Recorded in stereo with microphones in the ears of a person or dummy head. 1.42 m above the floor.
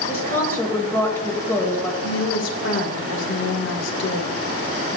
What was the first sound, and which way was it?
A woman speaking, 20° left (ahead or behind).